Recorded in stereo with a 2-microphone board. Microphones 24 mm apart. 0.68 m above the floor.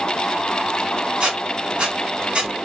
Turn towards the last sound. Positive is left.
turn(degrees=-50)  # may be behind; listen again after turning